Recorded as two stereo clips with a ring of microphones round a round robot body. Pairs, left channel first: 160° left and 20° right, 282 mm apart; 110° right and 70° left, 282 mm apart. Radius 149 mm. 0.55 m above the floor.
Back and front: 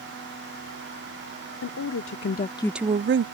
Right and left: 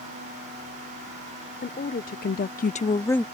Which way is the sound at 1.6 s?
175° right.